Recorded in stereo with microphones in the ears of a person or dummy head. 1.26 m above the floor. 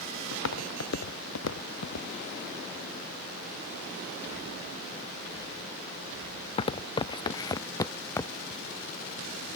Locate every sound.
0.3 s footsteps: 65° left (ahead or behind); by 8.6 s 5° left (ahead or behind)